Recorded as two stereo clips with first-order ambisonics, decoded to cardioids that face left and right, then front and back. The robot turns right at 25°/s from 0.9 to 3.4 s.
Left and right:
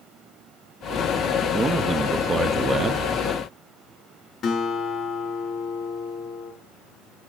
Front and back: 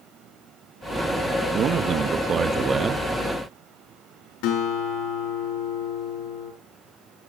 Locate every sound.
1.5 s a man speaking: 160° right, 0.5 m; by 3.1 s 120° right, 0.5 m
4.4 s a guitar: 20° left, 4.5 m